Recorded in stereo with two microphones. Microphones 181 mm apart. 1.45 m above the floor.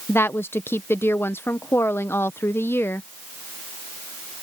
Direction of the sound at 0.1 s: 10° left (ahead or behind).